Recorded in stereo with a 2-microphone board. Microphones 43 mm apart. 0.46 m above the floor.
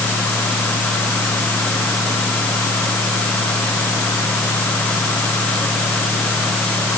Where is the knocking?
I don't hear knocking.